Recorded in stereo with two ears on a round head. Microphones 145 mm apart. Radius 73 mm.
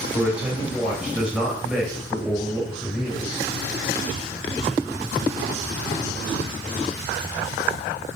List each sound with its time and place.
0.1 s a man speaking: 5° right (ahead or behind), 4 m